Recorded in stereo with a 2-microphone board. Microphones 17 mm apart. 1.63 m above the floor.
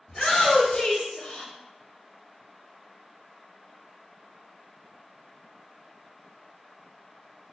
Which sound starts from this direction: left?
A shout, at 0.1 s.